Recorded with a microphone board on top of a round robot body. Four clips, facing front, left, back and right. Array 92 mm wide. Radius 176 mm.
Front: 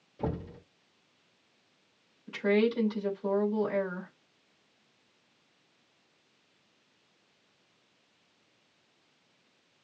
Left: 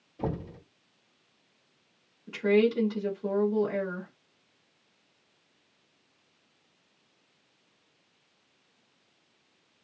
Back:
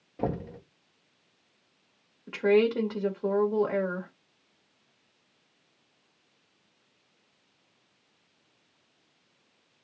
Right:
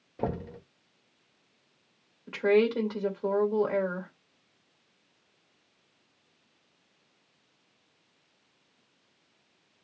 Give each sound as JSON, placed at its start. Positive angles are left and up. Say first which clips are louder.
{"t": 0.2, "sound": "knocking", "louder": "right 1 dB, back 4 dB", "azimuth_deg": -140, "distance_m": 1.7}
{"t": 2.3, "sound": "a woman speaking", "louder": "even, back 4 dB", "azimuth_deg": -145, "distance_m": 2.5}